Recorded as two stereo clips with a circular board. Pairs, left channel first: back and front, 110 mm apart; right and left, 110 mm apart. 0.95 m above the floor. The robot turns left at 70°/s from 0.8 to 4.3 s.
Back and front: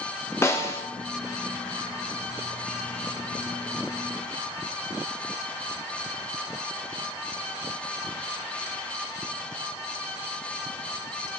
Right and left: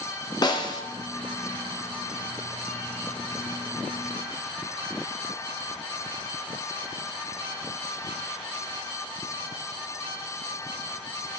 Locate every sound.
0.4 s a snare drum: 125° right, 0.5 m